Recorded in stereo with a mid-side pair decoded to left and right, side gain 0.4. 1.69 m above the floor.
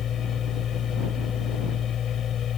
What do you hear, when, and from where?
0.0 s a machine running: 65° left